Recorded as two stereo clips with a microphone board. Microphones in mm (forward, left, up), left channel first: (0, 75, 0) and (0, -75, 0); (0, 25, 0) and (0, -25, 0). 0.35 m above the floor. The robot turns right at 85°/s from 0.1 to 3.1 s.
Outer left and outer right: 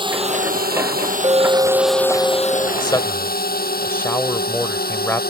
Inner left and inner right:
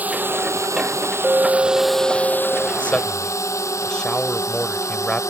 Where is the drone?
30° right (ahead or behind); by 5.3 s 85° left.